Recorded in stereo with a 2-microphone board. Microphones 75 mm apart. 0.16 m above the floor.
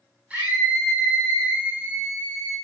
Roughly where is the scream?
Right.